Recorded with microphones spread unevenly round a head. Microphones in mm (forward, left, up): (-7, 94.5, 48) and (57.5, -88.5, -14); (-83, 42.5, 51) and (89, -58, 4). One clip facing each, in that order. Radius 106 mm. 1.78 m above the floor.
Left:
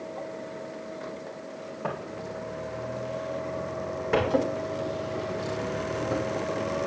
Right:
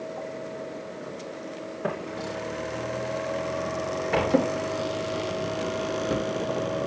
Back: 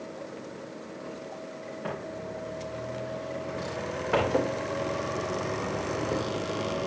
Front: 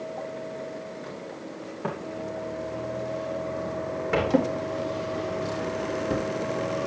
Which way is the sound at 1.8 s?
5° left.